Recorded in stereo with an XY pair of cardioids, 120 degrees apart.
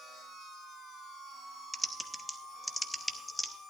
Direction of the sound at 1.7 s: 5° left.